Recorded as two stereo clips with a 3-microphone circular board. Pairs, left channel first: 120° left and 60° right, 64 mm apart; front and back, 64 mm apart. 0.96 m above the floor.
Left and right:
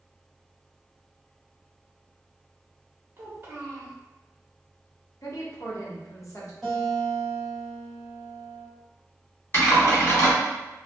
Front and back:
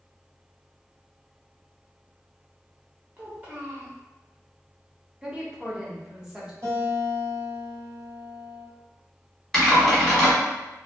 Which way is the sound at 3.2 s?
115° right.